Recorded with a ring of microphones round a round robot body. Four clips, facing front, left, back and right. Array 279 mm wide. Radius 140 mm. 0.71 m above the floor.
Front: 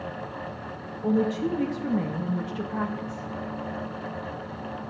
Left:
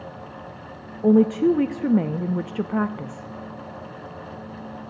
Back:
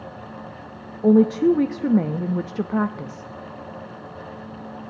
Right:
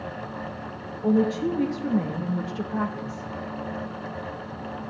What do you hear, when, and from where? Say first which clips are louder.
1.0 s a woman speaking: left 6 dB, back 9 dB; 140° left, 0.7 m